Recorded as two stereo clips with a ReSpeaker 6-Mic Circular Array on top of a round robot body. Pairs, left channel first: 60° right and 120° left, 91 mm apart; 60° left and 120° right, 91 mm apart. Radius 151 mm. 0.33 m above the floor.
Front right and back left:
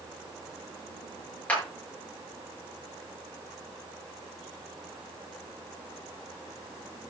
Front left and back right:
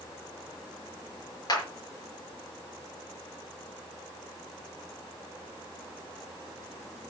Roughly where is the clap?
Ahead.